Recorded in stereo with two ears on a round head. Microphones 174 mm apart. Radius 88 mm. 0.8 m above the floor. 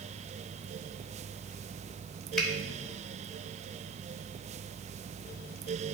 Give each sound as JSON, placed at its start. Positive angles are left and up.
{"t": 2.4, "sound": "a finger snap", "side_deg": 5, "distance_m": 1.3}